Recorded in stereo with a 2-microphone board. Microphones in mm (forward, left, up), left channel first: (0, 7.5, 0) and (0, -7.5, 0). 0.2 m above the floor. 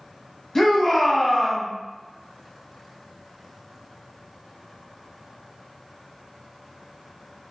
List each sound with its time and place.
0.6 s a shout: 25° left (ahead or behind), 1.3 m